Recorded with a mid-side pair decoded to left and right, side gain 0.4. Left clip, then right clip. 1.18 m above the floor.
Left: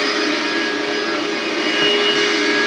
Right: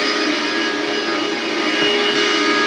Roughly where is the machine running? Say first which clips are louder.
Even; ahead.